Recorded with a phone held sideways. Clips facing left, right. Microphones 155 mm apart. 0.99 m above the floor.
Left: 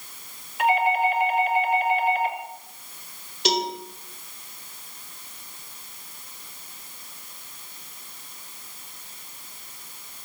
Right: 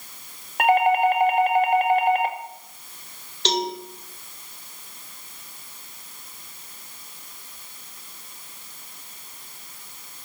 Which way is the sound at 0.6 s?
60° right (ahead or behind).